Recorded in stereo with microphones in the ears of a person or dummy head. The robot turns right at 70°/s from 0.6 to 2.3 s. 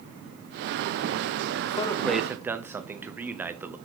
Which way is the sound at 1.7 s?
145° left.